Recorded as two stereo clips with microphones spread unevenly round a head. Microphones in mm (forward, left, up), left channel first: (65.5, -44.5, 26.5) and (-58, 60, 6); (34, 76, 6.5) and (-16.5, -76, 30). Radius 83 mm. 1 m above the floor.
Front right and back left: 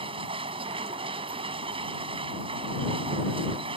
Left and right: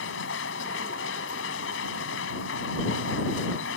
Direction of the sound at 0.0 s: 80° left.